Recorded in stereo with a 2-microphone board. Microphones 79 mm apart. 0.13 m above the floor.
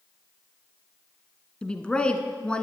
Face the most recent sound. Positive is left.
turn(degrees=15)  # may be behind; listen again after turning